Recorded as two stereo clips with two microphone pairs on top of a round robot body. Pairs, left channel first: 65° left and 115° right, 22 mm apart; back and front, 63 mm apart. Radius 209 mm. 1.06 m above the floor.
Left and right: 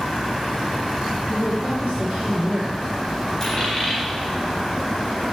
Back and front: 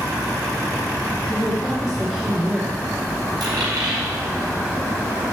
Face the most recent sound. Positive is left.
turn(degrees=0)